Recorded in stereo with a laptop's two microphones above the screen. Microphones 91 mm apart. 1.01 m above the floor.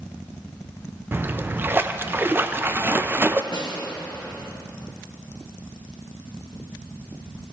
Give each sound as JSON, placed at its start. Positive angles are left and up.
{"t": 1.1, "sound": "a splash", "side_deg": -25, "distance_m": 0.5}
{"t": 3.5, "sound": "a snare drum", "side_deg": 65, "distance_m": 1.7}